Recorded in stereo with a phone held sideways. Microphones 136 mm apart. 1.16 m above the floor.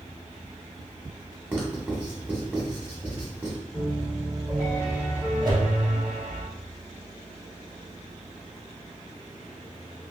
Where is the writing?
10° right (ahead or behind), 1.0 m.